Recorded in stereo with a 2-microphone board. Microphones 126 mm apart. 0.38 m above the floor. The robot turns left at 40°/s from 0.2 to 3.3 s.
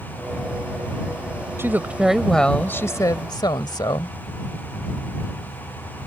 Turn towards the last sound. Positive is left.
turn(degrees=135)